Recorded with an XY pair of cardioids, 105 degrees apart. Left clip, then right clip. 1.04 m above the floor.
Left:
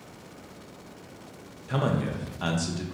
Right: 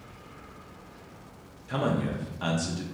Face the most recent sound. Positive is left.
turn(degrees=15)